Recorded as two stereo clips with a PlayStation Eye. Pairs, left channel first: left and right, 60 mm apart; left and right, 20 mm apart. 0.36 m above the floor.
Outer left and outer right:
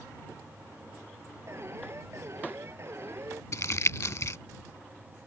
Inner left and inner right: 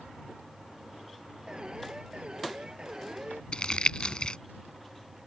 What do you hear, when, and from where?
1.5 s an alarm: 45° right (ahead or behind)
3.5 s crumpling: 55° left (ahead or behind)